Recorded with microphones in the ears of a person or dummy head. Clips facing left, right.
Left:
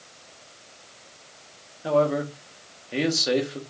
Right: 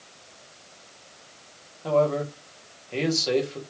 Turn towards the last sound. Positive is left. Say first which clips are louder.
# even
turn(degrees=15)  # may be behind; listen again after turning